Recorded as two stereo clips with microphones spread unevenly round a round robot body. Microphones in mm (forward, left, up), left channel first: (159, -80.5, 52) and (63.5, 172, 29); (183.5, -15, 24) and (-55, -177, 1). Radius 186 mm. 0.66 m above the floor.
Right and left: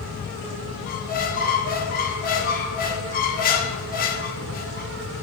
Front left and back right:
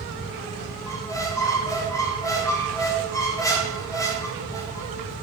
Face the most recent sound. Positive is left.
turn(degrees=-45)